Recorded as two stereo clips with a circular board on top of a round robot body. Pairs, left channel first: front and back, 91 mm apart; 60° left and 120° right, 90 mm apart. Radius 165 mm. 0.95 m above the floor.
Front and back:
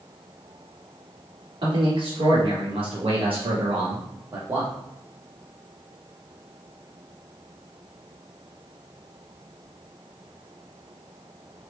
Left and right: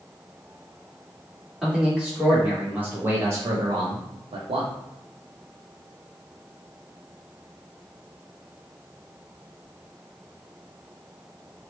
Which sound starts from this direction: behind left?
A man speaking, at 1.6 s.